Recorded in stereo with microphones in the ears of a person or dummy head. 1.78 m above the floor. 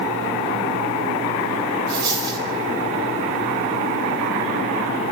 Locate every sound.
1.9 s a dropped coin: 30° right (ahead or behind), 3.5 m